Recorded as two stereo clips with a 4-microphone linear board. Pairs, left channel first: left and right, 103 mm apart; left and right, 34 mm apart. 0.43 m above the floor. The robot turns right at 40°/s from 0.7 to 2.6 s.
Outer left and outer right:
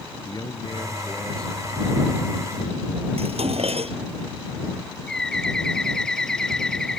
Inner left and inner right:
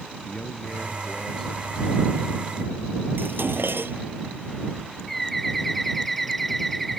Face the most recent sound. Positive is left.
turn(degrees=5)  # may be behind; listen again after turning